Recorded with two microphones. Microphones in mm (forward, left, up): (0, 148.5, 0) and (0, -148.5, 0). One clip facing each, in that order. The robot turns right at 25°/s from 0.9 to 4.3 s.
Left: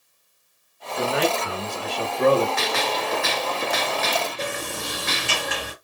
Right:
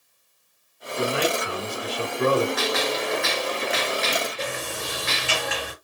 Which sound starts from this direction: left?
A sliding door, at 4.4 s.